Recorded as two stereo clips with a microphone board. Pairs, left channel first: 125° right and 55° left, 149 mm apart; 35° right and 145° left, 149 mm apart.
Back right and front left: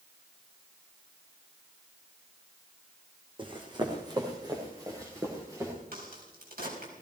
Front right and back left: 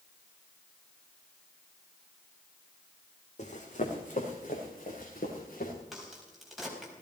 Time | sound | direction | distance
3.4 | running footsteps | straight ahead | 3 m
5.9 | a crack | 60° left | 4.5 m